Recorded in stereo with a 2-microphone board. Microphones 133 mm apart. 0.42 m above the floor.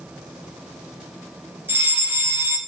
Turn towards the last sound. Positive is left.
turn(degrees=-15)  # may be behind; listen again after turning